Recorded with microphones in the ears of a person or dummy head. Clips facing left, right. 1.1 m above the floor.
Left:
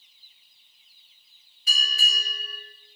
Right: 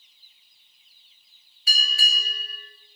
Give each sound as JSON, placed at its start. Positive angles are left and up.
{"t": 1.7, "sound": "a bell", "side_deg": -65, "distance_m": 8.0}